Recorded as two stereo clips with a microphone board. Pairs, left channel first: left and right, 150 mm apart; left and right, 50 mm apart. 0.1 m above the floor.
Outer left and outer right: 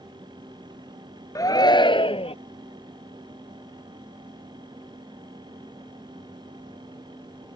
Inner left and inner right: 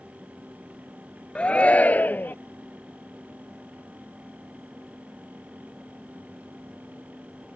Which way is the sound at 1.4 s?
25° left (ahead or behind).